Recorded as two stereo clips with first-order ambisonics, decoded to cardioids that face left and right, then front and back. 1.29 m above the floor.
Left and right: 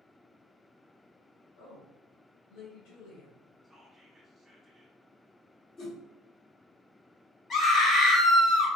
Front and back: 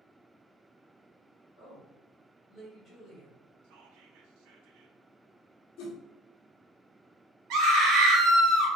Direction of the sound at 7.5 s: 155° left.